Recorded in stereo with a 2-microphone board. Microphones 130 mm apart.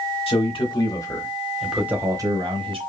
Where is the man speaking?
50° left (ahead or behind), 1.4 m; by 2.8 s 45° right (ahead or behind), 1.3 m.